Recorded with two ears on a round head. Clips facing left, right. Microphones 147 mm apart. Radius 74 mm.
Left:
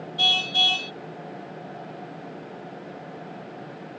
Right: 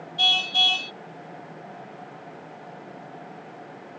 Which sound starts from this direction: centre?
A car horn, at 0.2 s.